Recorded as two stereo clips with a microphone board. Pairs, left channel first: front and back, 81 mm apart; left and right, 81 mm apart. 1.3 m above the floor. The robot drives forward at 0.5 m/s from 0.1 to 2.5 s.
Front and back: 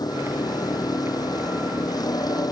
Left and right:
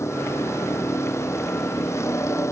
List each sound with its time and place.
0.0 s a vehicle: 35° left